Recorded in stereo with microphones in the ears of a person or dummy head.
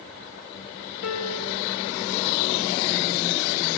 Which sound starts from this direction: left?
A piano, at 1.0 s.